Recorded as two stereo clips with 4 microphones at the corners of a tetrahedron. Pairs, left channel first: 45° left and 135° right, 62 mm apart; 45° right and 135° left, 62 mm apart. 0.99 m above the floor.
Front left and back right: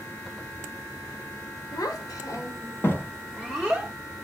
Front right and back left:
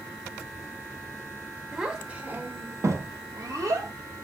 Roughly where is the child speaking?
Ahead left.